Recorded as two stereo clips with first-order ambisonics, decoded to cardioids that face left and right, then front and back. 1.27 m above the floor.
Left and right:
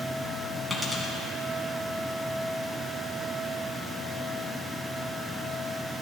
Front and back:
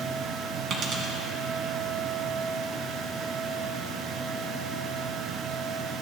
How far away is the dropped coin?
About 1.4 m.